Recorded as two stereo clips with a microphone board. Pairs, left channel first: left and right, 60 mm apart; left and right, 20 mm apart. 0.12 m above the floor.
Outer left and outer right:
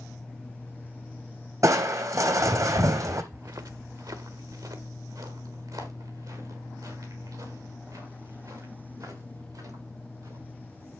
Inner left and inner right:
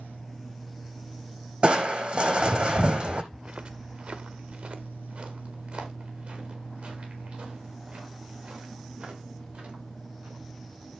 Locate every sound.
1.6 s crushing: 65° right (ahead or behind), 1.1 m
3.3 s footsteps: 55° right (ahead or behind), 0.7 m; by 10.5 s 75° right (ahead or behind), 10 m